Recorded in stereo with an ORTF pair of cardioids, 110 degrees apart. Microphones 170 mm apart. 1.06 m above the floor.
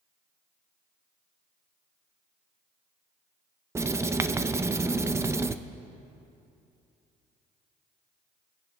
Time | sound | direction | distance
3.8 | writing | 15° right | 0.5 m